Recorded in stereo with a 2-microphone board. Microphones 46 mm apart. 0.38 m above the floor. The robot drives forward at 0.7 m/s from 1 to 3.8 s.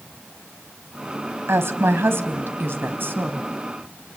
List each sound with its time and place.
1.5 s a woman speaking: 65° right (ahead or behind), 1.9 m; by 3.5 s 45° right (ahead or behind), 2.5 m